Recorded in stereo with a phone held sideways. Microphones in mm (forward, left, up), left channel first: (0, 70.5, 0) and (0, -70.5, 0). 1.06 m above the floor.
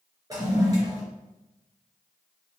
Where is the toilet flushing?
25° right (ahead or behind), 3 m.